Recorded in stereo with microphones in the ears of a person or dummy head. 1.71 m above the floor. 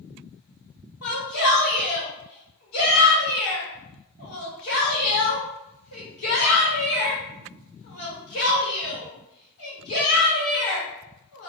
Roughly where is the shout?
Left.